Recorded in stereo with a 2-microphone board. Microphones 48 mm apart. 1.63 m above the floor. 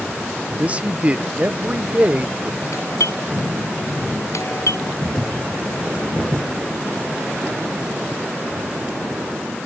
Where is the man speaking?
25° right (ahead or behind).